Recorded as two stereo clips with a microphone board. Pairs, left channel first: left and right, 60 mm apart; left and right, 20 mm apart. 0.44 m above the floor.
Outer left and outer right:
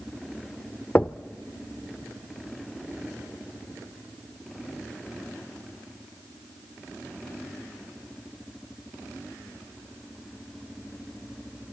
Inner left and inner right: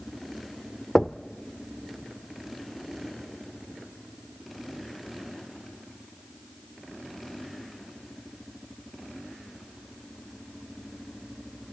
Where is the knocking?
25° left (ahead or behind), 0.6 m.